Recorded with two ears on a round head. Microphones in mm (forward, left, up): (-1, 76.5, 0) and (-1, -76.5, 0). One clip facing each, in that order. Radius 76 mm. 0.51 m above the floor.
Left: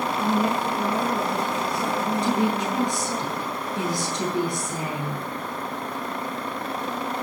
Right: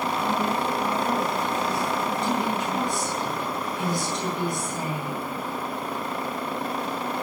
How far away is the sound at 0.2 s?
About 7.5 m.